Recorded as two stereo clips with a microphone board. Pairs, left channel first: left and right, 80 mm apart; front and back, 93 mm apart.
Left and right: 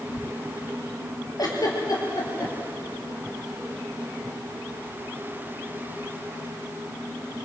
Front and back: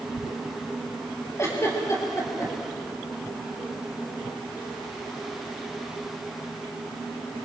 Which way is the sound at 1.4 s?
55° left.